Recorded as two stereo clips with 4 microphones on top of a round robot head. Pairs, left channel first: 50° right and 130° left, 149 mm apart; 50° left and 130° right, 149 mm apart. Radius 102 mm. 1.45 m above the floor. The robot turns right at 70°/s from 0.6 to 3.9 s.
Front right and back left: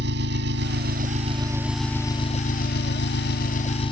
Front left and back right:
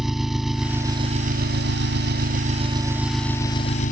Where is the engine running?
140° left; by 3.9 s 10° left.